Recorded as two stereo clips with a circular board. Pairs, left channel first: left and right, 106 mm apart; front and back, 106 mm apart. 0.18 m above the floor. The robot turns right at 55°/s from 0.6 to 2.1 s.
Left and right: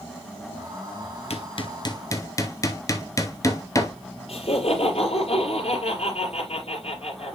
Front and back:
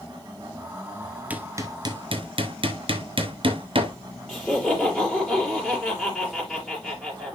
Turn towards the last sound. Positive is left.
turn(degrees=90)